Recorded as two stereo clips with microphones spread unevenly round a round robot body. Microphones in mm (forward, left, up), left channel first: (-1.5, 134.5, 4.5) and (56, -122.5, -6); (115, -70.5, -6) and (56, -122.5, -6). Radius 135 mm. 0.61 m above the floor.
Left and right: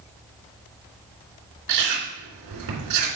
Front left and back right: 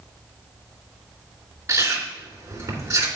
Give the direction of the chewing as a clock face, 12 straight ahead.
3 o'clock.